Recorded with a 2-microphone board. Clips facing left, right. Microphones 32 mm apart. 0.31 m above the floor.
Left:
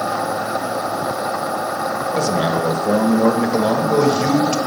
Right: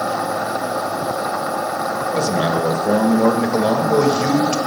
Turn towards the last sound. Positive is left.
turn(degrees=-5)  # may be behind; listen again after turning